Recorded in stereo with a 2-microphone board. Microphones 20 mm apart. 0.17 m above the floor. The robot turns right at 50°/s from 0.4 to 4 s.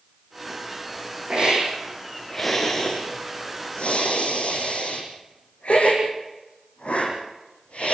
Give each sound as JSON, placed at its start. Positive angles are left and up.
{"t": 1.3, "sound": "a hiss", "side_deg": -50, "distance_m": 8.0}